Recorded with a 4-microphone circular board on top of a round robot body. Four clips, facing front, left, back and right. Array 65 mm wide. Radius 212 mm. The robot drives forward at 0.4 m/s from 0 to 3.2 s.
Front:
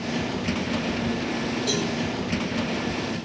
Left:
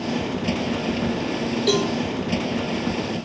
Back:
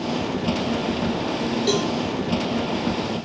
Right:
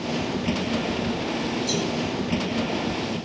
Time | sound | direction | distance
1.7 | a cowbell | 130° left | 1.3 m